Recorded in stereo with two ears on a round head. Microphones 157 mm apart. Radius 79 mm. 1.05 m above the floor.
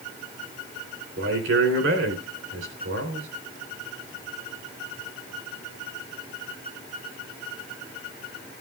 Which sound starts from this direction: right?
A man speaking, at 1.2 s.